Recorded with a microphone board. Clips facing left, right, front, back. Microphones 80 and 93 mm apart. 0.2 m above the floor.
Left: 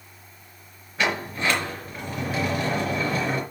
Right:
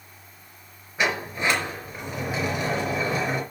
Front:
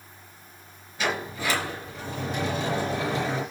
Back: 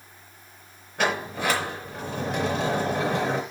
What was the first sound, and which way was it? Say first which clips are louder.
A sliding door: even, back 3 dB; 165° right.